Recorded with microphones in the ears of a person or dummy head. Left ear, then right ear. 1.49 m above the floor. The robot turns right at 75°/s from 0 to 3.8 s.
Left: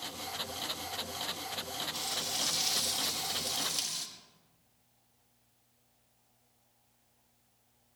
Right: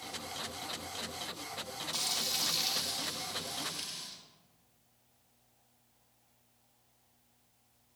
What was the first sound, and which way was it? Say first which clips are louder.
Frying: right 4 dB; 55° right.